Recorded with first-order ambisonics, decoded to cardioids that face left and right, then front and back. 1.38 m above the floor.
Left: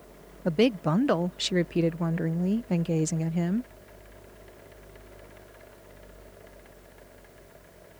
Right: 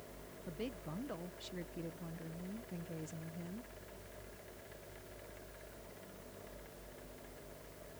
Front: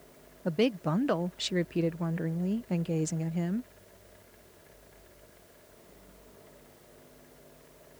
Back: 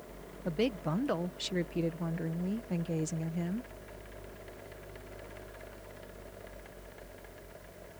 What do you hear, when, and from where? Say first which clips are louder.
0.5 s a woman speaking: left 22 dB, front 4 dB; 75° left